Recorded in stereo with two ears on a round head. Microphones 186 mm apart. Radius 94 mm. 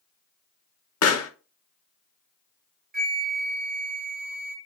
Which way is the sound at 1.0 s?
85° left.